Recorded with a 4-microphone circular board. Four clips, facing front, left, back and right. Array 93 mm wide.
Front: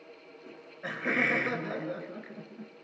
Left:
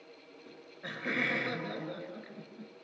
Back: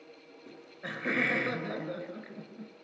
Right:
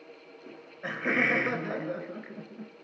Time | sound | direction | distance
0.5 | laughter | 75° right | 1.4 m